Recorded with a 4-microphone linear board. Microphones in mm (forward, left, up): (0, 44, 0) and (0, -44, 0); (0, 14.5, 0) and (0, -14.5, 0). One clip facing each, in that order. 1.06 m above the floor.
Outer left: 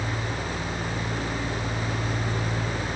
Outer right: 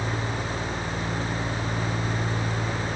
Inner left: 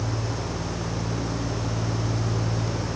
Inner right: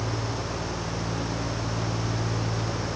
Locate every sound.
Only background noise.